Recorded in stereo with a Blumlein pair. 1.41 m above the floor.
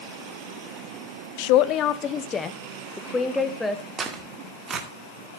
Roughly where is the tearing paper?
Ahead.